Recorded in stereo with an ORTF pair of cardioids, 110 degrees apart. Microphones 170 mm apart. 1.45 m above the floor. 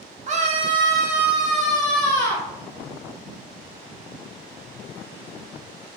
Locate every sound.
0.3 s a scream: 45° right, 0.8 m; by 2.5 s 20° left, 1.3 m